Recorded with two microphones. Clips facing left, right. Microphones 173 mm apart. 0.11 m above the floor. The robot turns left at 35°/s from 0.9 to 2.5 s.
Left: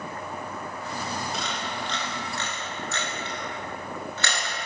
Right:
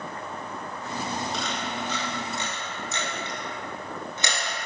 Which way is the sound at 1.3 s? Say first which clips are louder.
Right 1 dB; centre (ahead or behind).